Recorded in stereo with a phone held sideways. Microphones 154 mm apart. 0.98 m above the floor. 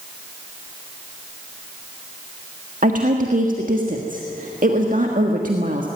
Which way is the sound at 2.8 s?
60° right (ahead or behind).